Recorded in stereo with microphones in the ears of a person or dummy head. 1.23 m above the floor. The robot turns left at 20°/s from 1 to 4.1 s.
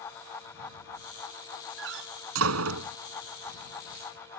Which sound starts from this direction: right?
A door slam, at 1.8 s.